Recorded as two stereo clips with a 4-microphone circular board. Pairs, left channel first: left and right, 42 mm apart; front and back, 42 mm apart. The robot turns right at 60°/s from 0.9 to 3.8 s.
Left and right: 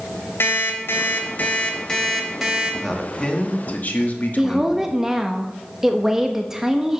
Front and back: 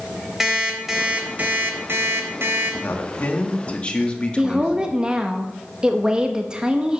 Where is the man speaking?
Straight ahead, 1.5 m; by 4.9 s 60° left, 1.5 m.